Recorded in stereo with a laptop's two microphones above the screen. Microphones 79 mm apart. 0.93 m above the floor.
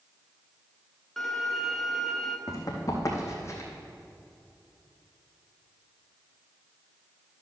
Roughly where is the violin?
Centre.